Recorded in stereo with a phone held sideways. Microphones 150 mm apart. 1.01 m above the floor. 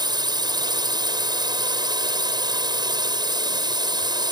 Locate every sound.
0.0 s a drone: 30° right (ahead or behind)